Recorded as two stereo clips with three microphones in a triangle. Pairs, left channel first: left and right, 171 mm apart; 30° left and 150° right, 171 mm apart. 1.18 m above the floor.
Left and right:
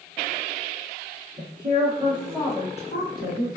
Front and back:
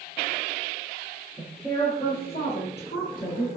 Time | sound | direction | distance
1.4 | a woman speaking | 50° right | 1.0 m